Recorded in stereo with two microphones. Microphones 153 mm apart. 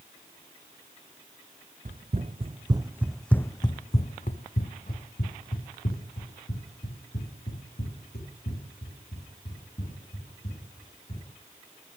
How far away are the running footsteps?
About 1.0 m.